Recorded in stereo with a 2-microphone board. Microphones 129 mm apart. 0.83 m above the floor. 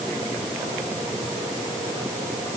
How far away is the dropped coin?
I don't hear a dropped coin.